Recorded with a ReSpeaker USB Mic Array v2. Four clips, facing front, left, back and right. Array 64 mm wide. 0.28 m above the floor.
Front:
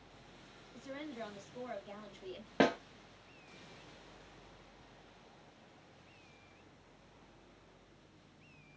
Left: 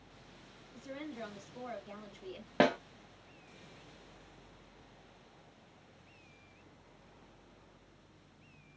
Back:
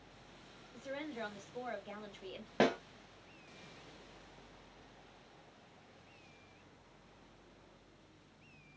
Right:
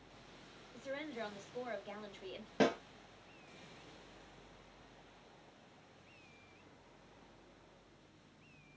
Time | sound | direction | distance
0.7 | a woman speaking | 130° right | 1.8 m
2.6 | a snare drum | 85° left | 1.0 m